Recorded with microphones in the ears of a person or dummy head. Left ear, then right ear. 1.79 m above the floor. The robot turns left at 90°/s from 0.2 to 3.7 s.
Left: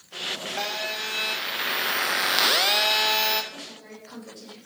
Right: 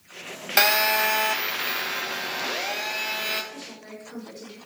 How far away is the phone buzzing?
About 0.8 m.